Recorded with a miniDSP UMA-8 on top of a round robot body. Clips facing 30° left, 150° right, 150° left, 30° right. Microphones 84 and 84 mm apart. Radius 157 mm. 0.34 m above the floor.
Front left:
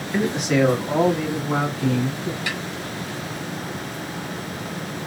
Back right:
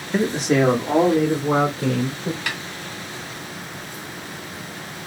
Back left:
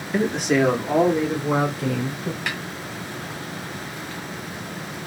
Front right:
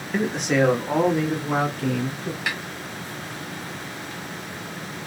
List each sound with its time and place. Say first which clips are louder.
0.1 s a man speaking: back right 2 dB, back left 2 dB; 125° right, 1.2 m
2.5 s a snare drum: front left 1 dB, front right 3 dB; 115° right, 1.7 m